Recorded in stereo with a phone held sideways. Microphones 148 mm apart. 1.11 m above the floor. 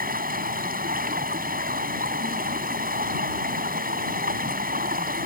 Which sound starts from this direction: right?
Running water, at 0.0 s.